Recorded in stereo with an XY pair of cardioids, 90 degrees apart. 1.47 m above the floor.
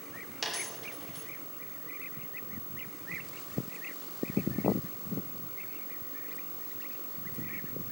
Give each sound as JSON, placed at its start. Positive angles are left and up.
{"t": 0.4, "sound": "a dropped coin", "azimuth_deg": -5, "distance_m": 2.5}